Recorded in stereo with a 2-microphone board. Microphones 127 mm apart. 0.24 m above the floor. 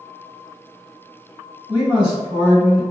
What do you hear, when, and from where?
1.7 s a man speaking: 35° left (ahead or behind), 1.8 m; by 2.8 s 45° left (ahead or behind), 2 m